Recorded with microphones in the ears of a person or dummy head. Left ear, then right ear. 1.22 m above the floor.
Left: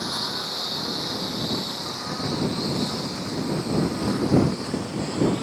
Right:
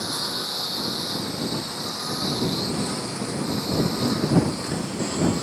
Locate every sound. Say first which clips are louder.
0.0 s a lawn mower: even; 10° left (ahead or behind); by 5.5 s 10° right (ahead or behind)